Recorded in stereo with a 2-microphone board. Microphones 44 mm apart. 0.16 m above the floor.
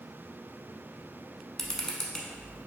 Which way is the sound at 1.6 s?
15° left (ahead or behind).